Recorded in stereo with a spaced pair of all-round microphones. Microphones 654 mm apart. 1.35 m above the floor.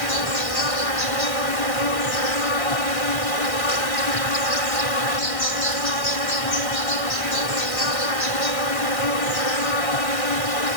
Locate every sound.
0.0 s an insect: 55° left (ahead or behind)